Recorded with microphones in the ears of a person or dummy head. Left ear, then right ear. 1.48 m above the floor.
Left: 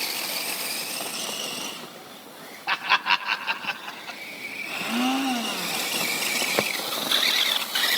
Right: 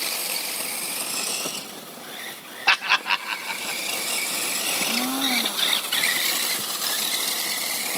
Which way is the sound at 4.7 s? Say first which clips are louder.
Left 1 dB; 10° left (ahead or behind).